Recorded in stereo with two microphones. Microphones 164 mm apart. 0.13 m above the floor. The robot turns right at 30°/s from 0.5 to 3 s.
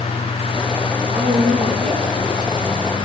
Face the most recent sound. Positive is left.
turn(degrees=-10)